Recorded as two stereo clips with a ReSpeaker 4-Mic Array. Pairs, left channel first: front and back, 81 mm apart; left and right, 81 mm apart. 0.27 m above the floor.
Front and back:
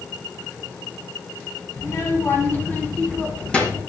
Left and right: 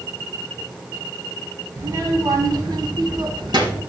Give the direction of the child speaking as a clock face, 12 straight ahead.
2 o'clock.